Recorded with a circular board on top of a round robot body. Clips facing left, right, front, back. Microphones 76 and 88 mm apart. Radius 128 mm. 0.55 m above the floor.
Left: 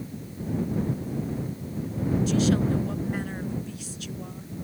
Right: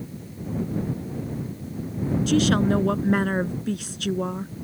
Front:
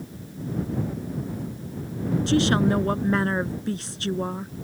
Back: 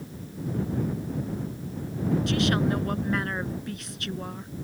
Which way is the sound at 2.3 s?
60° right.